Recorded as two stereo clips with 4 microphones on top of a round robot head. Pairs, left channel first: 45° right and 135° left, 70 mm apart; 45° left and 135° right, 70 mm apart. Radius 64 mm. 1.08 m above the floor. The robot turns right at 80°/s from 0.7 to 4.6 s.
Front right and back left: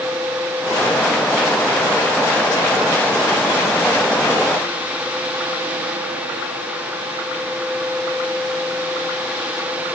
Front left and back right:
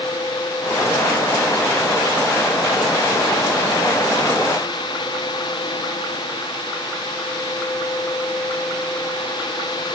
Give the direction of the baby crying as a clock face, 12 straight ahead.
I don't hear a baby crying.